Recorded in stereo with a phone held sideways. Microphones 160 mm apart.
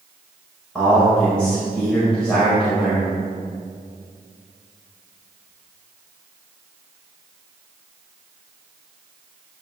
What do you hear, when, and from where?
0.8 s a man speaking: 5° left (ahead or behind), 4.5 m